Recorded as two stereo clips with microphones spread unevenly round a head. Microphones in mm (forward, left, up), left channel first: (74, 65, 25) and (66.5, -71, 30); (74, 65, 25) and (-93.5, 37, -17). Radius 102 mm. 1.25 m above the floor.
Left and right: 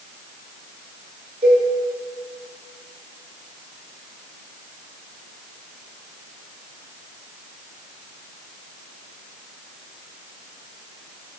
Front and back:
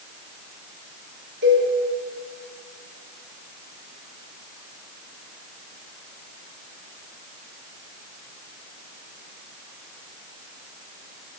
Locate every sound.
1.4 s a cowbell: 155° right, 1.7 m